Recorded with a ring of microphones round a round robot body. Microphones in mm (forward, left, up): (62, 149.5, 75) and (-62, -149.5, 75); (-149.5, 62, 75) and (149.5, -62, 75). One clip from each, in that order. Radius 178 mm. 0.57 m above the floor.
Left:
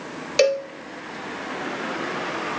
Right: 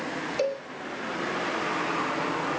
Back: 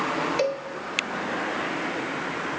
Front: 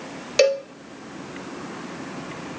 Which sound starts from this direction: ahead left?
A cowbell, at 0.4 s.